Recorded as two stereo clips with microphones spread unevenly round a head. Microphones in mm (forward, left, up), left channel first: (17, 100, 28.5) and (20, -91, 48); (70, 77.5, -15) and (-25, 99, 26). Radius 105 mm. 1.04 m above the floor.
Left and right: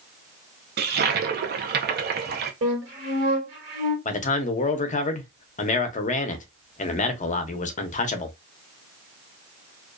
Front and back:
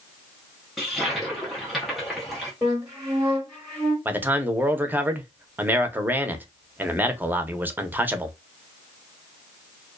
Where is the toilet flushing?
80° right, 0.6 m.